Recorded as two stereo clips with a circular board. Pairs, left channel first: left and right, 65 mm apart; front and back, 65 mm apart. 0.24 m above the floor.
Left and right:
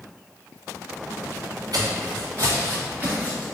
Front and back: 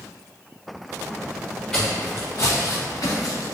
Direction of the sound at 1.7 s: 80° right.